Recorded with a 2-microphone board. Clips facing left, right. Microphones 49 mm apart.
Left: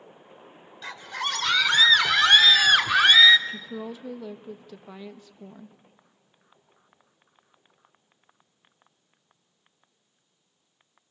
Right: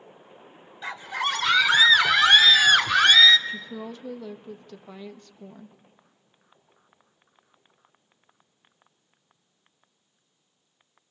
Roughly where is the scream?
Centre.